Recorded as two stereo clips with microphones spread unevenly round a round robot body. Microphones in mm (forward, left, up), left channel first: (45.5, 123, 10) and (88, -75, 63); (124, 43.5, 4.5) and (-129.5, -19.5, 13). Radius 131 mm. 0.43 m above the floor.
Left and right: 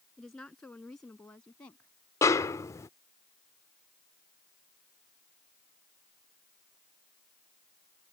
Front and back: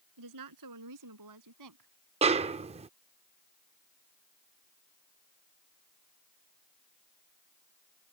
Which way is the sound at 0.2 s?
170° right.